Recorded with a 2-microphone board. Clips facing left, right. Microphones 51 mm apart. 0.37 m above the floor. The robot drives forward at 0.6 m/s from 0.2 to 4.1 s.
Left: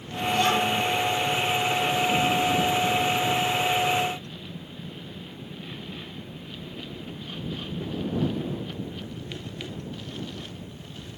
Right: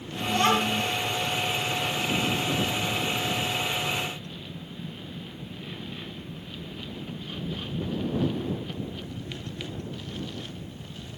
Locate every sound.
0.3 s a child speaking: 45° right (ahead or behind), 2.5 m; by 0.8 s 40° right (ahead or behind), 3 m